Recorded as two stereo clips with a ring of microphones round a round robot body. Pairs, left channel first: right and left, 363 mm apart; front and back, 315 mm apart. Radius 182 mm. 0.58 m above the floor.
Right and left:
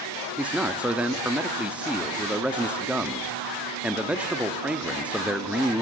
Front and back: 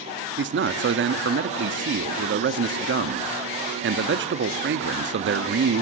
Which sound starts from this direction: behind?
A man speaking, at 0.4 s.